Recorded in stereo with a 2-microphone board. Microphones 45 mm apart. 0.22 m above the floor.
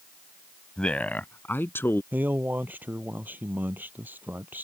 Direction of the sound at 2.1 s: 45° right (ahead or behind).